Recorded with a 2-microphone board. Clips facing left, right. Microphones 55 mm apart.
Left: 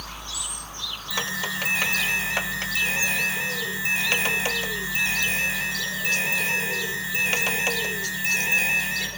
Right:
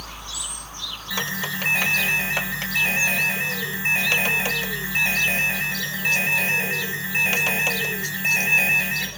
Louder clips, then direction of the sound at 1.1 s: Right 1 dB; 35° right (ahead or behind).